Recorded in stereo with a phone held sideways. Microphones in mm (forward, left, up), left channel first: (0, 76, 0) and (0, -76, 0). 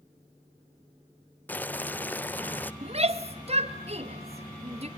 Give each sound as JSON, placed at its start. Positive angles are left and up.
{"t": 1.5, "sound": "boiling", "side_deg": 10, "distance_m": 0.5}
{"t": 2.8, "sound": "a shout", "side_deg": -45, "distance_m": 1.5}